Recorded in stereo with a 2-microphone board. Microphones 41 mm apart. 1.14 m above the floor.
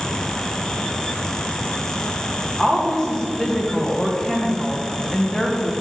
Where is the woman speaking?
20° left (ahead or behind), 1.5 m.